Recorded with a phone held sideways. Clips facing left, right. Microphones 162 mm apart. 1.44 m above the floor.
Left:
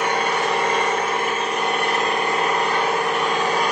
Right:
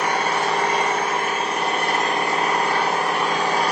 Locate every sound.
0.0 s an engine running: 40° right (ahead or behind), 0.9 m